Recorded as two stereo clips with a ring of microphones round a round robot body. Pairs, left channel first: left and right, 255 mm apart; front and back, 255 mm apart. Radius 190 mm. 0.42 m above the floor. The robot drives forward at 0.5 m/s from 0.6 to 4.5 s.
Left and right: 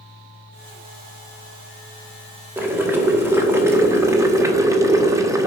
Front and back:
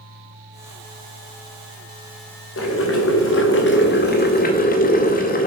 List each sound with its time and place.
2.6 s boiling: 10° right, 2 m; by 5.5 s 20° right, 1.5 m